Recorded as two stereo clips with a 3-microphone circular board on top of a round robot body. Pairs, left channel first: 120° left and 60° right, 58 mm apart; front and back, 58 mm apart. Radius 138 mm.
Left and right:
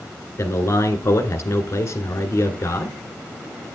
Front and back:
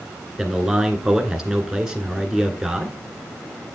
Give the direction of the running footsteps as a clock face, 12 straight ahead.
I don't hear running footsteps.